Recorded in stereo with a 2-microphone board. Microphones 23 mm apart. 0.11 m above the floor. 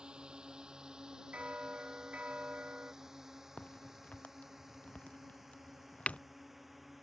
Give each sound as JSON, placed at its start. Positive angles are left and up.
{"t": 0.0, "sound": "a drone", "side_deg": -45}
{"t": 1.3, "sound": "a bell", "side_deg": -75}
{"t": 3.6, "sound": "a crack", "side_deg": 70}